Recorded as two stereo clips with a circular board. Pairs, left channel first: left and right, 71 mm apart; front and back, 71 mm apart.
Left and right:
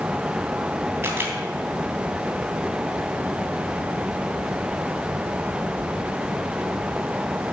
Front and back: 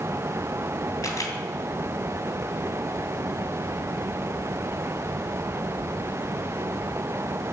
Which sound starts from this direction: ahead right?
A camera shutter, at 1.0 s.